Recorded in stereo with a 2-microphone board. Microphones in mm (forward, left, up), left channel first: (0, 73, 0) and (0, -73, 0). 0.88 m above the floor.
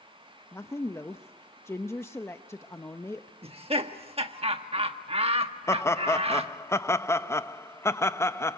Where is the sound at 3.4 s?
40° right (ahead or behind), 1.4 m.